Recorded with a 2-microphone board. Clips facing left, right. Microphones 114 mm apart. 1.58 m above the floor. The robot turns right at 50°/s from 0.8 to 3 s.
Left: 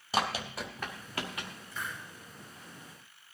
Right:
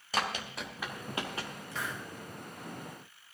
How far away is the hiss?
About 1.7 m.